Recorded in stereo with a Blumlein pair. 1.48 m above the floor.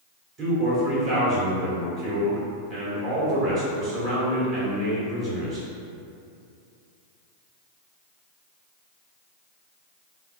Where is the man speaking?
30° right, 1.3 m.